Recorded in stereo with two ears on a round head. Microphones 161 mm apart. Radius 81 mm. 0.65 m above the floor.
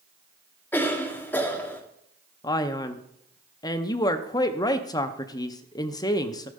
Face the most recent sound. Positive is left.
turn(degrees=20)  # may be behind; listen again after turning